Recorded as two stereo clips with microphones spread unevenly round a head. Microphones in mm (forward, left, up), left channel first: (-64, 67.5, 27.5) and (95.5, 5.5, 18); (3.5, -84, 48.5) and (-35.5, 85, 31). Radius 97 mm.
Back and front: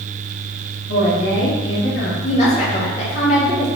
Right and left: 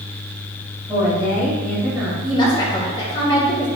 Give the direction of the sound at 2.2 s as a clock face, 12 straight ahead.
5 o'clock.